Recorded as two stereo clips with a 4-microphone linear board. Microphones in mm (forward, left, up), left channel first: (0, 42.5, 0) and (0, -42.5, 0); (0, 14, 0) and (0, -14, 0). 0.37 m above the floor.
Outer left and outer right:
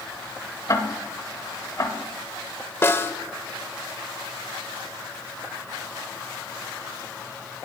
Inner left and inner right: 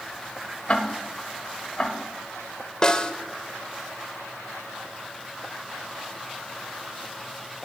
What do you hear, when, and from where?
0.7 s ticking: 40° left (ahead or behind), 1.2 m
2.8 s a snare drum: 30° left (ahead or behind), 1.0 m